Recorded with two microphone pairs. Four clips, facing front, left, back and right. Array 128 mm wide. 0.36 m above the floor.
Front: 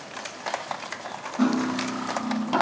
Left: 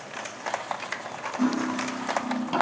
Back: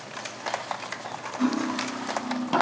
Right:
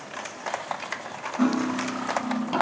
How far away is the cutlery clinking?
About 0.9 m.